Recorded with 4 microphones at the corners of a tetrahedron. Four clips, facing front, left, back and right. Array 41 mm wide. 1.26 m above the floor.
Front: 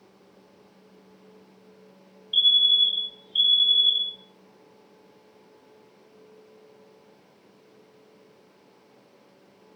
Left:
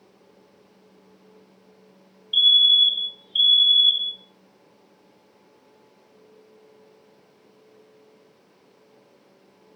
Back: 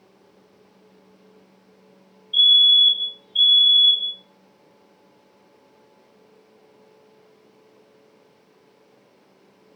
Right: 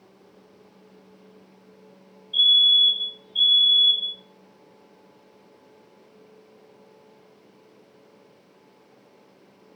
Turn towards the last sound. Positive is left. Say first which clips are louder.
# left 1 dB, back 5 dB
turn(degrees=60)